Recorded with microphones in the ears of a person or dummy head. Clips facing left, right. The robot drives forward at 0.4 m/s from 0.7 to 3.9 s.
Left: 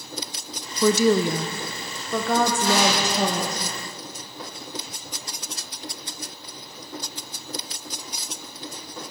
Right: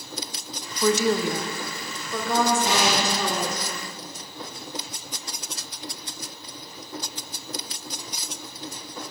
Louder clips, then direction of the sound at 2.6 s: Left 2 dB; 20° right (ahead or behind).